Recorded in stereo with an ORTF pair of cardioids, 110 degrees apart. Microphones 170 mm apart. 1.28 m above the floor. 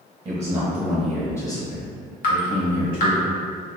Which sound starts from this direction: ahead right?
A man speaking, at 0.2 s.